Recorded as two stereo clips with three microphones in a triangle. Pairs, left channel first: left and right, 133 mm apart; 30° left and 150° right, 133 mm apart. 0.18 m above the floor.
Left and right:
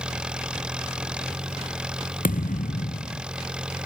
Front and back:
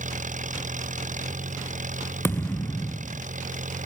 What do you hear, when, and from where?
0.0 s an engine running: 175° right
2.2 s a thud: 105° left